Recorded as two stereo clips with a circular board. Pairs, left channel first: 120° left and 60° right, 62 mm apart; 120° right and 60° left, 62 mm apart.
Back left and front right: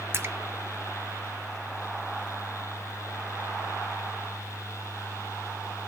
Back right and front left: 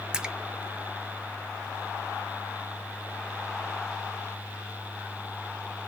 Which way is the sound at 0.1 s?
15° right.